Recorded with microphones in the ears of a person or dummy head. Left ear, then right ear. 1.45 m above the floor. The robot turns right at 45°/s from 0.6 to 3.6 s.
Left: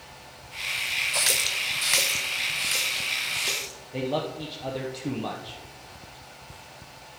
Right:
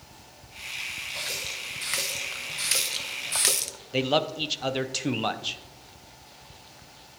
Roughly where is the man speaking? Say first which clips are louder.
Right 5 dB; right.